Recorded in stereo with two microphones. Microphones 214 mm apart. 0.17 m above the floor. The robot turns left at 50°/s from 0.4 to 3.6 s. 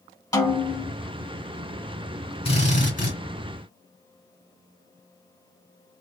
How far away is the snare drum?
About 1.1 m.